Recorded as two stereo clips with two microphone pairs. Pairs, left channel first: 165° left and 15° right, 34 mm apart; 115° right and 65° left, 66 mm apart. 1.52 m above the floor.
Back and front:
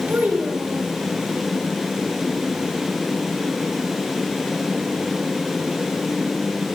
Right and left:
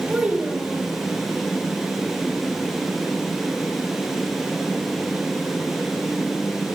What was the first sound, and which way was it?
A child speaking, 10° right.